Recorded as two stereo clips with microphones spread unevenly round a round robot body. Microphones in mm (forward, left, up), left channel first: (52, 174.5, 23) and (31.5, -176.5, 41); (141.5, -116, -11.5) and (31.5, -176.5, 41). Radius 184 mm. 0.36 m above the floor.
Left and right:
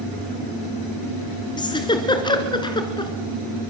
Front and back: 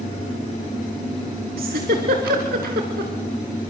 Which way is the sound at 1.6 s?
165° left.